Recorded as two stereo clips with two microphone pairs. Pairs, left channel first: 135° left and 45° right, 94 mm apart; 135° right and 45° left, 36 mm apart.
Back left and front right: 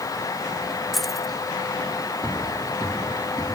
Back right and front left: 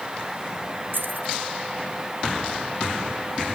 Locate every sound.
0.9 s keys jangling: 45° left